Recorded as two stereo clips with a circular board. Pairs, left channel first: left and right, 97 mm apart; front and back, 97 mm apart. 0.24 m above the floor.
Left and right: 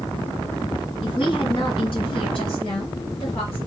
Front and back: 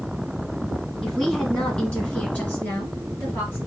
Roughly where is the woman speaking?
Left.